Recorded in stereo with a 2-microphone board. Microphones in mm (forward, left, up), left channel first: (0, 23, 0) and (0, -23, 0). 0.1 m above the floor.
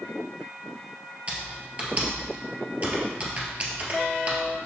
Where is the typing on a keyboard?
30° right (ahead or behind), 1.9 m.